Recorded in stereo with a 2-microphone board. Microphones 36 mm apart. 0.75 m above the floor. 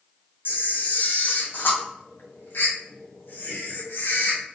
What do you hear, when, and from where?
0.5 s a camera shutter: 70° left (ahead or behind), 0.9 m